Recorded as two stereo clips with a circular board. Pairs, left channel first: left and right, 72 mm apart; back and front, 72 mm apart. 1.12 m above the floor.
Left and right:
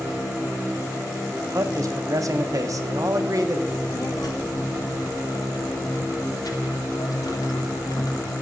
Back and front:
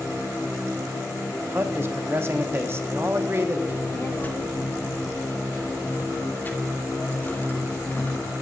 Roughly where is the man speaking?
Ahead right.